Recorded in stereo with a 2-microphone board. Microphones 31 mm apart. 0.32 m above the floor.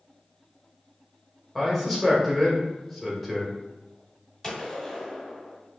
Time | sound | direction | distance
1.6 | a man speaking | 5° right (ahead or behind) | 1.0 m
4.4 | a gunshot | 10° left (ahead or behind) | 1.0 m